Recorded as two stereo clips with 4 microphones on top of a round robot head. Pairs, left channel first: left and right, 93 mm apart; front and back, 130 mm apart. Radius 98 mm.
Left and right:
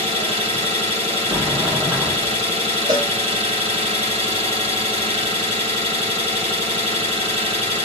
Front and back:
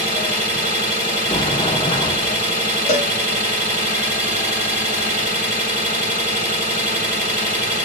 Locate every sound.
0.0 s an engine running: 75° right, 2.5 m
1.3 s a sliding door: 30° right, 0.8 m
2.9 s a cowbell: 40° right, 1.4 m